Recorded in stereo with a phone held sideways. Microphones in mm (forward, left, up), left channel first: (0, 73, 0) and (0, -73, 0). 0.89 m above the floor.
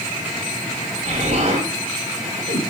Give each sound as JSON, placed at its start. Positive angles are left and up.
{"t": 1.1, "sound": "an explosion", "side_deg": -45, "distance_m": 5.0}